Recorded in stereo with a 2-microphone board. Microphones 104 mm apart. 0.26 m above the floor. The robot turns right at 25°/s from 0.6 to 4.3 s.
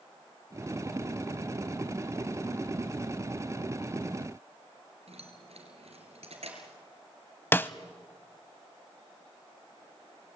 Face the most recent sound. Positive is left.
turn(degrees=20)  # may be behind; listen again after turning